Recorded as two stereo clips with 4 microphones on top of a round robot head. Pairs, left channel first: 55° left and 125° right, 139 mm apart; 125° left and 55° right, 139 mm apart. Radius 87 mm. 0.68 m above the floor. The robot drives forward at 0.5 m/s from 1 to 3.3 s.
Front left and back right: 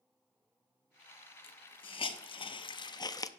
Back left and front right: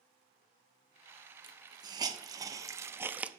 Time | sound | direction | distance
1.4 | a hiss | 5° left | 1.3 m